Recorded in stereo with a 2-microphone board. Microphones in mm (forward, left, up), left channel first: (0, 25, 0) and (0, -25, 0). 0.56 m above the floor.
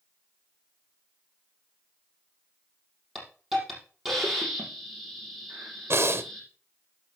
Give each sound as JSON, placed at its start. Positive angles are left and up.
{"t": 3.1, "sound": "a hiss", "side_deg": -5, "distance_m": 5.5}
{"t": 5.9, "sound": "breathing", "side_deg": -60, "distance_m": 0.9}